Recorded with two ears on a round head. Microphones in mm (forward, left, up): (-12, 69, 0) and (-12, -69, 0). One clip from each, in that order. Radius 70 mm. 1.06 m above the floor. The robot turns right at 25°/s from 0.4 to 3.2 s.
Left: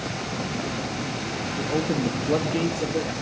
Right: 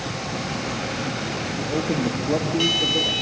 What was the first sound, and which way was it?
A man speaking, 35° left.